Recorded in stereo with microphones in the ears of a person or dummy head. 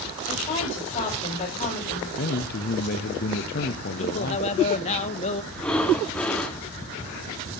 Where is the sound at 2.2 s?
45° left (ahead or behind), 0.7 m.